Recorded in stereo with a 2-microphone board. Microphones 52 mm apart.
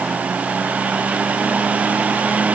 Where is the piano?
I don't hear a piano.